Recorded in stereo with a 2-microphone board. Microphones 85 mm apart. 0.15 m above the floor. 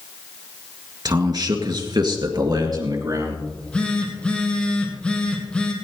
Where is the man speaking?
50° right (ahead or behind), 2 m; by 3.4 s 45° right (ahead or behind), 3.5 m.